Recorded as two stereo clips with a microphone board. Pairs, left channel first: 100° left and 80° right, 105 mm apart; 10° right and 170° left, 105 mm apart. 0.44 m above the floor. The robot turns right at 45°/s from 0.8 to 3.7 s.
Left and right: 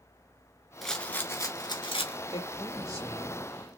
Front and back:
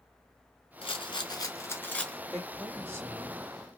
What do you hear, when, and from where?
0.8 s a rattle: 10° left, 0.9 m; by 2.2 s 75° left, 0.9 m
2.3 s a woman speaking: 80° left, 2 m; by 3.4 s 130° left, 2 m